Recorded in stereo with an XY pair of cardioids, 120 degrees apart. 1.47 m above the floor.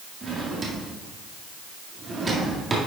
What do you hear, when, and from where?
0.2 s a drawer: 35° right, 1.9 m